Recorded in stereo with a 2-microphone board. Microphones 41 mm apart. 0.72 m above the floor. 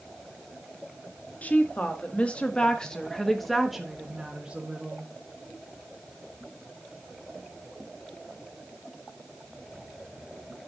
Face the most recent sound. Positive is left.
turn(degrees=-30)  # may be behind; listen again after turning